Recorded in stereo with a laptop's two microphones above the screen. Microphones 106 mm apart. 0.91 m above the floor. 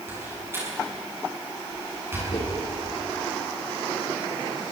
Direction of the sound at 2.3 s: 55° left (ahead or behind).